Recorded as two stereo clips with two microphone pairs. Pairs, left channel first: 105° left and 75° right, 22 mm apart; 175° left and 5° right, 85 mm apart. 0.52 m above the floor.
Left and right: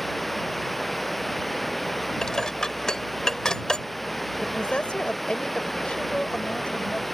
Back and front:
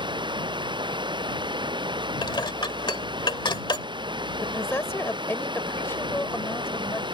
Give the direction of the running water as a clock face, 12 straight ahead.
11 o'clock.